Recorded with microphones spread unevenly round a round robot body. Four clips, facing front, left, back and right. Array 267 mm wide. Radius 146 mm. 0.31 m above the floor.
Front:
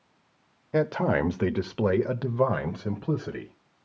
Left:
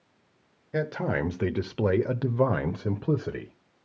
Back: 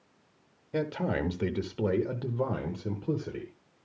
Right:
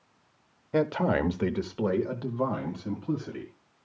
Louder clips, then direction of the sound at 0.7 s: Right 3 dB, front 6 dB; 40° right.